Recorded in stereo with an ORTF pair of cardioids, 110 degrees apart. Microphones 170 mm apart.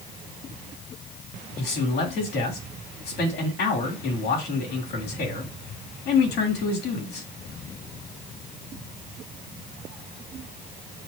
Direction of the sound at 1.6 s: 70° left.